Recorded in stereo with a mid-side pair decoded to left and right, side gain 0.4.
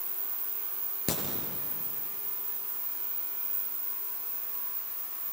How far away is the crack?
About 6.5 m.